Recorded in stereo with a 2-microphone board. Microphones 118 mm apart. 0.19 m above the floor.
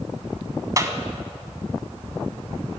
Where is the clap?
30° right (ahead or behind), 1.1 m.